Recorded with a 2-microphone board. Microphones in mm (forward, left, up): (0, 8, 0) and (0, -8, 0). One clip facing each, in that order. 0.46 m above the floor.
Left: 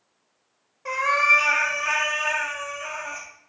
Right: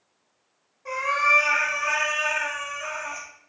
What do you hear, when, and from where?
0.8 s a cat meowing: 40° left (ahead or behind), 0.6 m; by 3.3 s 15° right (ahead or behind), 1.1 m